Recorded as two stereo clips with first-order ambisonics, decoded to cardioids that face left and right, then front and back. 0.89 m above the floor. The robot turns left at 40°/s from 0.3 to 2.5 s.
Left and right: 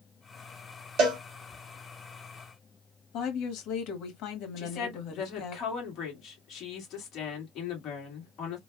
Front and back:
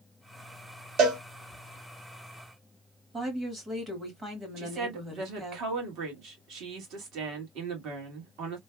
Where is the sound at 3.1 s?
110° left, 1.4 m.